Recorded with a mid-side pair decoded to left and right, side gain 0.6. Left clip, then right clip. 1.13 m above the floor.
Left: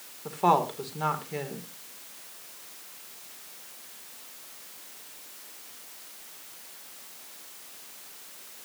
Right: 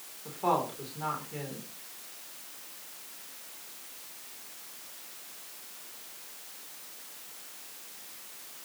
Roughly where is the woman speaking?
Ahead left.